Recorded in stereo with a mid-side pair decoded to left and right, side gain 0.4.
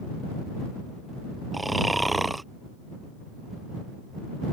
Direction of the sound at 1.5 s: 15° right.